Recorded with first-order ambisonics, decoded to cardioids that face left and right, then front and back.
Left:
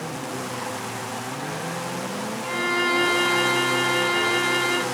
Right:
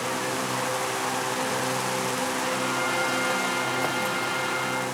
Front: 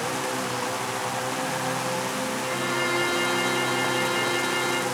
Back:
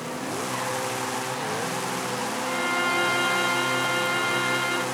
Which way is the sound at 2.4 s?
80° left.